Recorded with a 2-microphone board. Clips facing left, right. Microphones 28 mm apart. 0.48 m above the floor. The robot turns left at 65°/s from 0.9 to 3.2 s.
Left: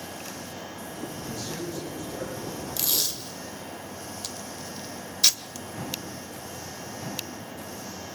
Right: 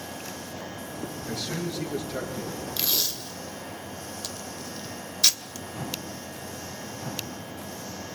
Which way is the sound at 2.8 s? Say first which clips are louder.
Right 1 dB; 30° right (ahead or behind).